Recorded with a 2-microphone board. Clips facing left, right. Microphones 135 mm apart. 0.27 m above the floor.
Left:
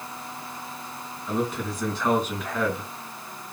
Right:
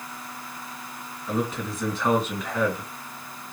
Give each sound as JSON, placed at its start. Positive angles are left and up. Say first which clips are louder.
{"t": 1.3, "sound": "a man speaking", "louder": "even", "side_deg": -5, "distance_m": 1.9}